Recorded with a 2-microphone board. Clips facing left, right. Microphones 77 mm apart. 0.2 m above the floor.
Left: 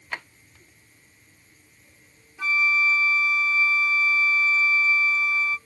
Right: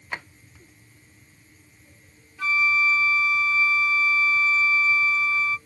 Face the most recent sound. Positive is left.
turn(degrees=15)  # may be behind; listen again after turning